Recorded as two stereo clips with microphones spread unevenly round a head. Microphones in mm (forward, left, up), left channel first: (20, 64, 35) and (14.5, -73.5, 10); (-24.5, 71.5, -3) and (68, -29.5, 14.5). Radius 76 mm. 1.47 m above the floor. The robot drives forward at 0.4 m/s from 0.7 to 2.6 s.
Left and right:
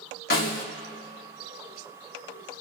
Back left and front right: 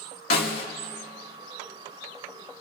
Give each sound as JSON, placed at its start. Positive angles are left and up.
{"t": 0.3, "sound": "a snare drum", "azimuth_deg": 115, "distance_m": 1.9}